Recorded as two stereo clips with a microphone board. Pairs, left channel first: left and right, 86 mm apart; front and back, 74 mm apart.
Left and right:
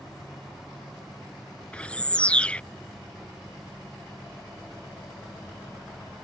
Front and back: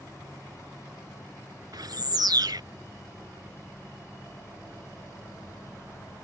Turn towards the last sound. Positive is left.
turn(degrees=165)